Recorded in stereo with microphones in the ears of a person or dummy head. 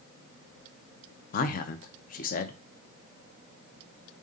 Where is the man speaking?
50° left (ahead or behind), 0.5 m.